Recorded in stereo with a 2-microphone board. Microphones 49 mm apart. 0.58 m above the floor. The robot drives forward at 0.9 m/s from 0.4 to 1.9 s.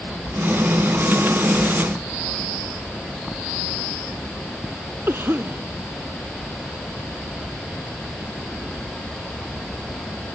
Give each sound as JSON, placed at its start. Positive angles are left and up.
{"t": 5.1, "sound": "a cough", "side_deg": -45}